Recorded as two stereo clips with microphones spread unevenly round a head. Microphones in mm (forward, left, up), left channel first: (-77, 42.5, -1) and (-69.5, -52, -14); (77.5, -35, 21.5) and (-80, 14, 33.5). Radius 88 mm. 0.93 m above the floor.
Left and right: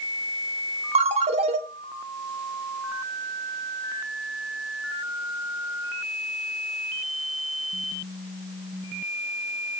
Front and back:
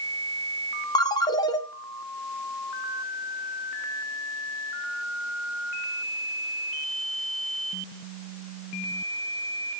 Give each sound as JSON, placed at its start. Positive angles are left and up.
{"t": 0.9, "sound": "a ringtone", "azimuth_deg": -85, "distance_m": 1.3}